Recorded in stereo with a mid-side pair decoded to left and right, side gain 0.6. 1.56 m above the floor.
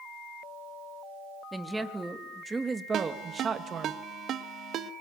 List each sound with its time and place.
1.5 s a woman speaking: 10° right, 3 m; by 3.9 s 45° right, 2 m
2.9 s a ringtone: 55° right, 1.7 m